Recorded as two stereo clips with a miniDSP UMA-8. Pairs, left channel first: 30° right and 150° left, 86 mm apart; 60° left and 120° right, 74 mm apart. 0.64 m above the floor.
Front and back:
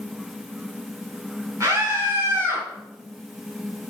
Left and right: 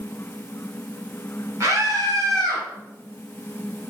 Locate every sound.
1.6 s a scream: 165° right, 4 m; by 2.6 s 150° right, 5 m